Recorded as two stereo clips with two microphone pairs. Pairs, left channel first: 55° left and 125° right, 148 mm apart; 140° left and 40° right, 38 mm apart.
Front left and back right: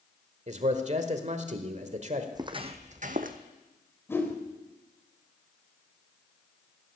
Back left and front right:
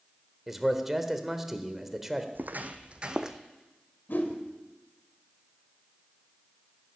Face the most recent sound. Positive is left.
turn(degrees=125)